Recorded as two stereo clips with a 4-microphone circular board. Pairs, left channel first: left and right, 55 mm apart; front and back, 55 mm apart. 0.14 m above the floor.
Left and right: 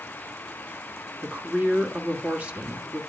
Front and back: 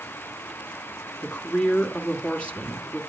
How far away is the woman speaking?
About 1.5 m.